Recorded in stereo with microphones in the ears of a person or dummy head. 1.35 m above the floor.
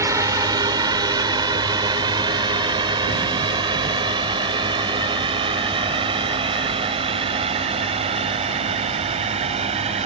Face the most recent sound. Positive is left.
turn(degrees=-30)  # may be behind; listen again after turning